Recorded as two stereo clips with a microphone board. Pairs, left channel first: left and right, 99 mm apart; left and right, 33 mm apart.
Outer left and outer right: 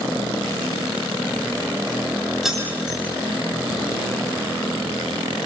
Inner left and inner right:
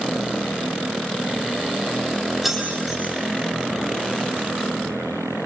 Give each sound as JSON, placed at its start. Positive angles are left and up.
{"t": 2.4, "sound": "keys jangling", "side_deg": -5, "distance_m": 4.5}